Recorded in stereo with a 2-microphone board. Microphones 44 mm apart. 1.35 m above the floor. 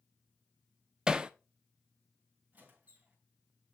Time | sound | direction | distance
1.1 | hammering | 20° right (ahead or behind) | 0.5 m
2.5 | a squeak | 35° right (ahead or behind) | 3.5 m